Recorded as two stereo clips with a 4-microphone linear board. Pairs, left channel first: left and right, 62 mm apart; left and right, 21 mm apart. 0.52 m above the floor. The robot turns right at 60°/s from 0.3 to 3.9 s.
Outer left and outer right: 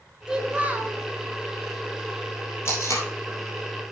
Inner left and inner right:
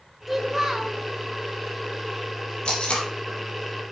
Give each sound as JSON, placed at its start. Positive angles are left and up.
{"t": 0.3, "sound": "a child speaking", "azimuth_deg": -155, "distance_m": 0.7}
{"t": 2.6, "sound": "tape being pulled", "side_deg": 40, "distance_m": 3.5}